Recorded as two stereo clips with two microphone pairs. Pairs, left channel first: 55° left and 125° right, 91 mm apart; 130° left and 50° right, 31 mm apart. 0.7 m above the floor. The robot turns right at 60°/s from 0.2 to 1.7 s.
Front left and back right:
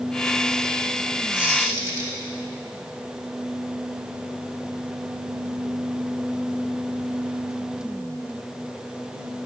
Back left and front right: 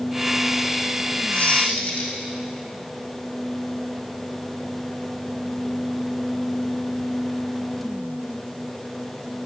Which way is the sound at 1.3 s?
155° left.